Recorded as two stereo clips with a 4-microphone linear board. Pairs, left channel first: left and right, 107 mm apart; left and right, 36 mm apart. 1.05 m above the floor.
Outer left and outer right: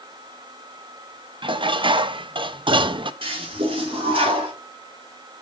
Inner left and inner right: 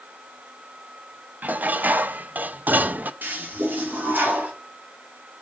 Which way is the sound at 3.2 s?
55° right (ahead or behind).